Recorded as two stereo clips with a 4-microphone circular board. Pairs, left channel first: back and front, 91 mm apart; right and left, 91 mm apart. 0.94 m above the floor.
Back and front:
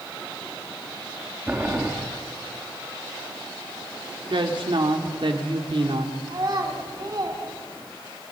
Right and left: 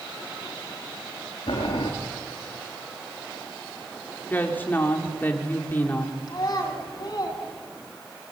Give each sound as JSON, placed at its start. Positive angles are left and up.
{"t": 1.5, "sound": "boiling", "azimuth_deg": -70, "distance_m": 4.0}
{"t": 4.3, "sound": "a woman speaking", "azimuth_deg": -20, "distance_m": 3.0}
{"t": 6.3, "sound": "a child speaking", "azimuth_deg": -45, "distance_m": 5.0}